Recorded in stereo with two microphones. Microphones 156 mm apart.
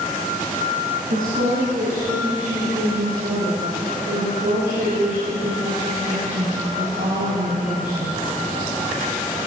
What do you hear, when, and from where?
1.1 s a woman speaking: 65° right (ahead or behind), 5.5 m; by 8.2 s 70° right (ahead or behind), 11.5 m